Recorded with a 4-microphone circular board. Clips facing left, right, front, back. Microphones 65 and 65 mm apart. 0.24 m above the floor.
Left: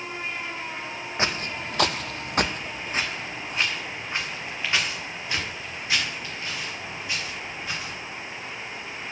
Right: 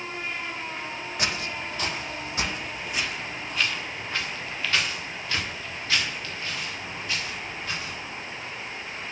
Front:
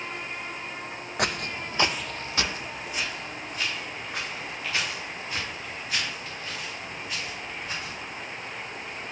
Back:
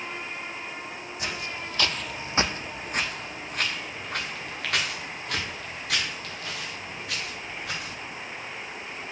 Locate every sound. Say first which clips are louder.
1.2 s footsteps: left 3 dB, front 6 dB; 30° left, 0.8 m; by 7.9 s 165° left, 5.5 m